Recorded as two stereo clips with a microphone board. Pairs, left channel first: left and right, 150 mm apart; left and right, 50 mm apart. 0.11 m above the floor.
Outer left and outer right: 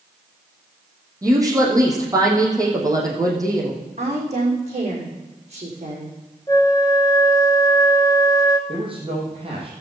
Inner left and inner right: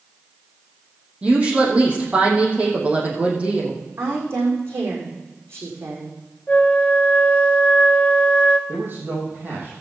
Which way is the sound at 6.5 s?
25° left (ahead or behind).